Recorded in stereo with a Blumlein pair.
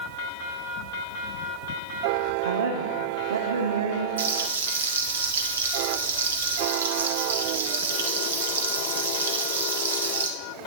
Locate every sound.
2.5 s a woman speaking: 65° right, 0.9 m
4.2 s frying: 65° right, 1.5 m